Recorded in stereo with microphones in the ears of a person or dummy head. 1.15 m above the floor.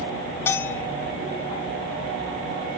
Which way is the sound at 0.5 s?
15° left (ahead or behind).